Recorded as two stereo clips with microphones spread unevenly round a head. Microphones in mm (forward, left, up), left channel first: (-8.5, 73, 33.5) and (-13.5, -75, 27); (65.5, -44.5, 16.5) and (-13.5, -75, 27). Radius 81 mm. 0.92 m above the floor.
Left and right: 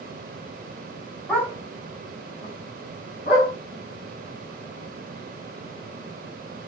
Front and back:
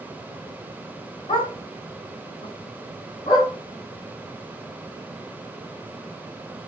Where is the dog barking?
5° left, 3.5 m; by 3.5 s 40° left, 4.5 m.